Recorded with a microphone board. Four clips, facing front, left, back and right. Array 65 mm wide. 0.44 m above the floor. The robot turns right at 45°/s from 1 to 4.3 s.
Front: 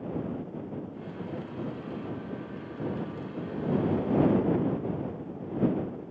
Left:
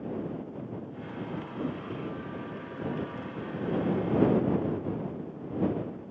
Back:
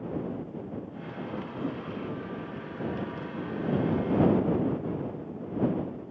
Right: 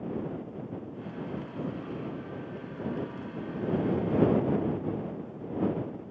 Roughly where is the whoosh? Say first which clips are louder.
Left 2 dB, back 4 dB; behind left.